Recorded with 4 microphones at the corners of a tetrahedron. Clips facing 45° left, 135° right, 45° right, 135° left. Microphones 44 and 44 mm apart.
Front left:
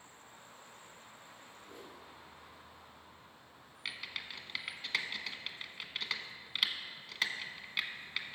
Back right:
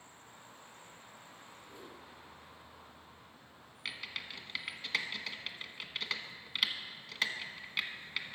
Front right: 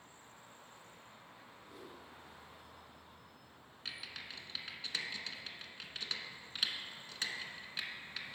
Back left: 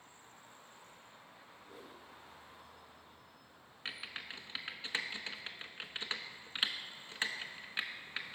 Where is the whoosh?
75° left, 3 m.